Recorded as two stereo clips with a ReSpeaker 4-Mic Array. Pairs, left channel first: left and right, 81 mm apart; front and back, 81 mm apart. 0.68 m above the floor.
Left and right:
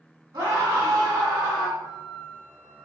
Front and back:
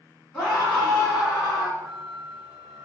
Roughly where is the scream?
Right.